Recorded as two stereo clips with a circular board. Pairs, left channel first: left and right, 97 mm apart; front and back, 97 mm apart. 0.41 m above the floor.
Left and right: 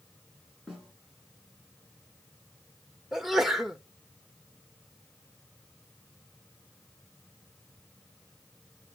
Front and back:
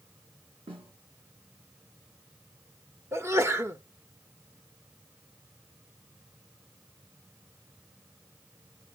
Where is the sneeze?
170° right, 0.8 m.